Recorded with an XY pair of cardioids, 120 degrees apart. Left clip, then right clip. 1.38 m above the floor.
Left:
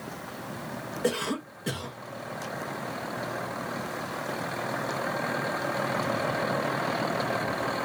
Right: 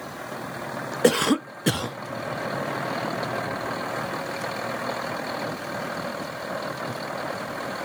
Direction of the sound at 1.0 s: 55° right.